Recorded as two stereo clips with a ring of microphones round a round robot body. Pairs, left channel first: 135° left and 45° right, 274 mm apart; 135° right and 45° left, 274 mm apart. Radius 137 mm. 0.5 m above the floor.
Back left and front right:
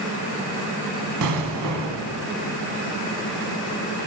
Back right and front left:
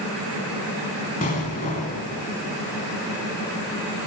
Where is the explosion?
75° right, 1.1 m.